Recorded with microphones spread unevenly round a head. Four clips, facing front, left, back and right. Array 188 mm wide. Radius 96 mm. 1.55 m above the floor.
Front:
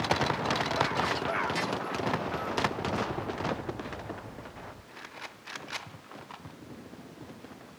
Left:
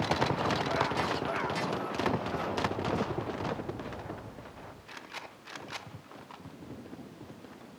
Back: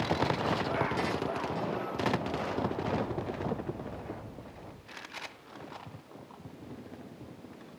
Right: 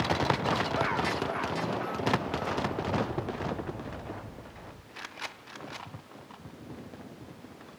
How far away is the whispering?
I don't hear whispering.